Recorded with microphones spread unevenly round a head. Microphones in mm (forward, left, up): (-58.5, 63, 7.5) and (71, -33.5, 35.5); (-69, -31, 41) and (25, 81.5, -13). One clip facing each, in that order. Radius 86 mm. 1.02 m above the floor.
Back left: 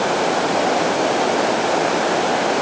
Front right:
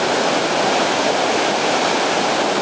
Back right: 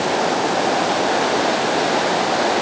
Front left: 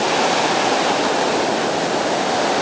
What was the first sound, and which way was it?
Only background noise.